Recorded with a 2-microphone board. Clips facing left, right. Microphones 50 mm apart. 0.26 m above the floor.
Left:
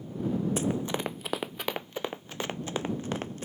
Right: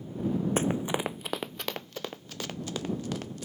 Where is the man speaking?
I don't hear a man speaking.